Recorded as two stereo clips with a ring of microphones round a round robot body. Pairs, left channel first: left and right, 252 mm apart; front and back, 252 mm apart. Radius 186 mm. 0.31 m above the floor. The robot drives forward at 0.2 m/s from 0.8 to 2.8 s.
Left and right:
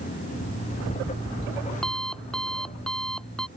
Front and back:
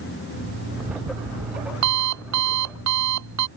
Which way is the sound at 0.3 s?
Straight behind.